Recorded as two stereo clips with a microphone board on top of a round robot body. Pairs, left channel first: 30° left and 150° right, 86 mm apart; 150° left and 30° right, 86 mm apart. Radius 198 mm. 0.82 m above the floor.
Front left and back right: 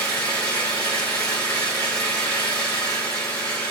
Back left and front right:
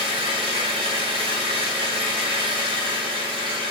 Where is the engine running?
45° right, 1.2 m.